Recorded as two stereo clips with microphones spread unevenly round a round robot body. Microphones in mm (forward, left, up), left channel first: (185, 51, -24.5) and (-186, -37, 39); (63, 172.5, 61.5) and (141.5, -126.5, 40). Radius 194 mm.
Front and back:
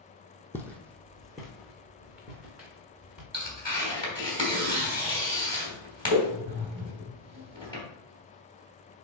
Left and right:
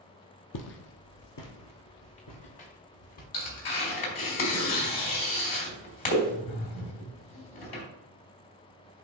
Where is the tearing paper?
115° left, 3 m.